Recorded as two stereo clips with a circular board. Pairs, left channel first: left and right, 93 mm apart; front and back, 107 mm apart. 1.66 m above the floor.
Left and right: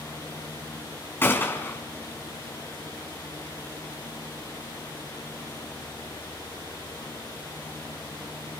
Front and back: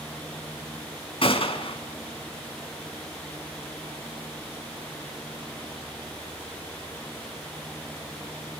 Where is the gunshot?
25° left, 3.5 m.